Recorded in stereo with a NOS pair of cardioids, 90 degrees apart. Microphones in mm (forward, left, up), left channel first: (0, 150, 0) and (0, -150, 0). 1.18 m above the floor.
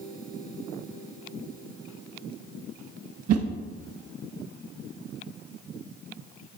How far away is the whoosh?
About 0.9 m.